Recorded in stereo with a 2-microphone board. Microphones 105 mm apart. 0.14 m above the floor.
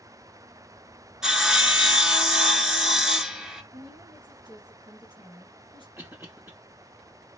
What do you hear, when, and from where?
1.2 s sawing: 5° right (ahead or behind), 0.9 m
3.7 s a woman speaking: 50° right (ahead or behind), 2.5 m
6.0 s a cough: 30° right (ahead or behind), 1.3 m